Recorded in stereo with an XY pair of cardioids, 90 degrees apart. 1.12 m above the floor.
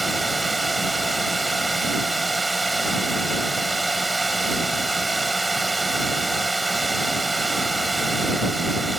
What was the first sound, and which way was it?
A drone, 15° right.